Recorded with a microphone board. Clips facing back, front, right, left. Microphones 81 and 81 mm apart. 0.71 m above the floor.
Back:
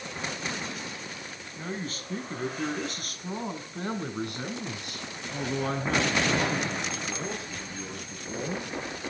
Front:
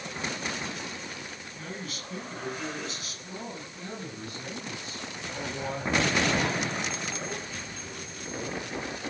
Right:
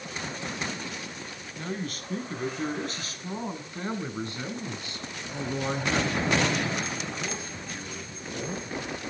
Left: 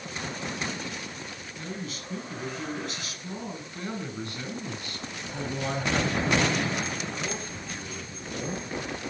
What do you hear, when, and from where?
1.6 s a man speaking: 125° right, 5 m; by 8.7 s 175° right, 9 m